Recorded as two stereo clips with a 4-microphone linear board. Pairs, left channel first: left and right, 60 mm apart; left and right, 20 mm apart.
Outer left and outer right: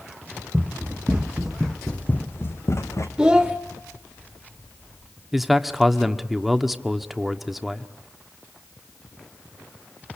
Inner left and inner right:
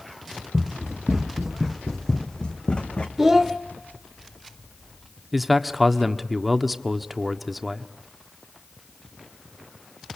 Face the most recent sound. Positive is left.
turn(degrees=-5)  # may be behind; listen again after turning